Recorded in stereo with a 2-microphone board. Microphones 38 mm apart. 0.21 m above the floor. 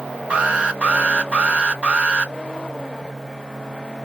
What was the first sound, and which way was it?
An alarm, 30° right (ahead or behind).